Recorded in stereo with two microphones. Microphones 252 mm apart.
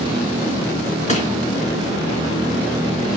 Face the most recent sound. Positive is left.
turn(degrees=30)  # may be behind; listen again after turning